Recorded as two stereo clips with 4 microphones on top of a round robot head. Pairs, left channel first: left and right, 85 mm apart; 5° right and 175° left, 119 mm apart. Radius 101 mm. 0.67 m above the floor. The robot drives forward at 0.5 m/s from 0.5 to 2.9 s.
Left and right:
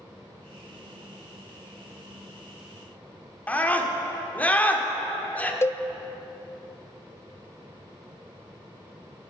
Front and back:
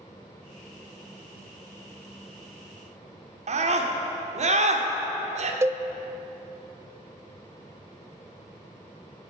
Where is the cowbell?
125° left, 0.5 m.